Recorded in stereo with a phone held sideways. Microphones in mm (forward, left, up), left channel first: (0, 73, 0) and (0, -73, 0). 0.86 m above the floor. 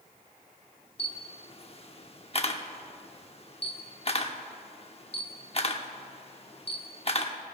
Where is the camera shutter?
40° left (ahead or behind), 0.9 m.